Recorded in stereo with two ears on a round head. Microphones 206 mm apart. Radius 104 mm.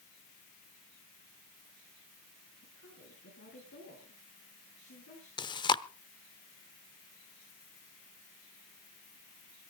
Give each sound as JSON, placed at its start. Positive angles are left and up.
{"t": 2.6, "sound": "a woman speaking", "side_deg": 55, "distance_m": 6.5}
{"t": 5.4, "sound": "chewing", "side_deg": 20, "distance_m": 0.7}